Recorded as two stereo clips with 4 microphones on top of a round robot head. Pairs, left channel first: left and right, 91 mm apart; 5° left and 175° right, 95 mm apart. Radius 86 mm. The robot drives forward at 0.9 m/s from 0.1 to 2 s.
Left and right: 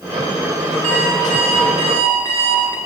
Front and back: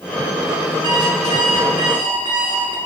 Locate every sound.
0.8 s an alarm clock: 120° right, 6 m; by 2.8 s 125° right, 6.5 m